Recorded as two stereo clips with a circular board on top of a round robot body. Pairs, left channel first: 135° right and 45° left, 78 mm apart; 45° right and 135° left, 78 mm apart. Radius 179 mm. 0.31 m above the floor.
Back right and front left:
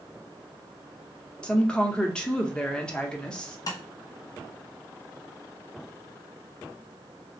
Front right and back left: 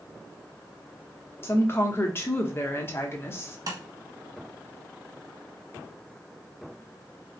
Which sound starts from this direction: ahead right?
A woman speaking, at 1.4 s.